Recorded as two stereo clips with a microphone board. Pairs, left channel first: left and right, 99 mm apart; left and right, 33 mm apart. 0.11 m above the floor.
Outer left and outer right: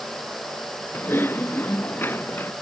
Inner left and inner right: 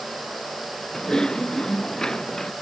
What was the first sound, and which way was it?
Typing on a keyboard, 20° left (ahead or behind).